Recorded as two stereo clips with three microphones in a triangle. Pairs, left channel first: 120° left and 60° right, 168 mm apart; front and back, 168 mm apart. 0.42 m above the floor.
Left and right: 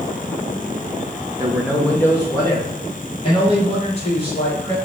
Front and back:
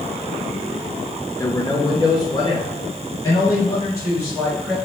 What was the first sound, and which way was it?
A man speaking, 40° right.